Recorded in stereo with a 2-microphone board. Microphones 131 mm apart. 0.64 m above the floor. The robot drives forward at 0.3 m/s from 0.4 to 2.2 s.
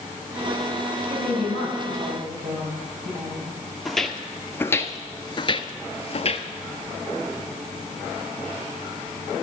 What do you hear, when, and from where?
1.1 s a woman speaking: 70° right (ahead or behind), 5 m; by 3.5 s 75° right (ahead or behind), 5 m
3.9 s footsteps: centre (ahead or behind), 1.0 m; by 6.5 s 45° left (ahead or behind), 1.0 m